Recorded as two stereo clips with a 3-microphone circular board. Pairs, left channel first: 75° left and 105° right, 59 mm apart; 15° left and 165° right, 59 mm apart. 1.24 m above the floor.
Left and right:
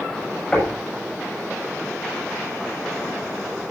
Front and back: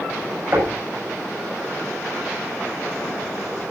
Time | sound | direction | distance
0.5 | knocking | 150° left | 7.5 m